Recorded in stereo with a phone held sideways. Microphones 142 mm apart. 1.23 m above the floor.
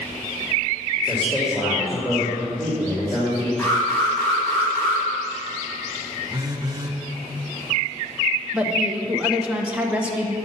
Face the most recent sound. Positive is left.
turn(degrees=-10)  # may be behind; listen again after turning